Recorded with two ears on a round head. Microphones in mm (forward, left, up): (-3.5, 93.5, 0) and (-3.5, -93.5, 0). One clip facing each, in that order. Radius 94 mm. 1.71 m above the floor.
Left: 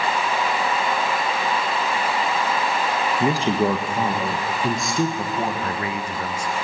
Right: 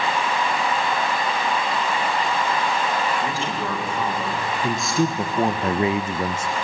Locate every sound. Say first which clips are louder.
3.2 s a woman speaking: left 7 dB; 35° left (ahead or behind), 1.8 m; by 5.9 s 30° right (ahead or behind), 1.5 m
5.6 s a man speaking: right 6 dB; 20° right (ahead or behind), 0.6 m